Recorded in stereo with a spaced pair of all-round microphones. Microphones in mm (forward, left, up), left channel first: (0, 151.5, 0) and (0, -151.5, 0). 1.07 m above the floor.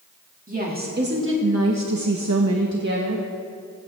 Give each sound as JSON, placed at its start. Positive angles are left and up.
{"t": 0.5, "sound": "a woman speaking", "side_deg": -25, "distance_m": 2.5}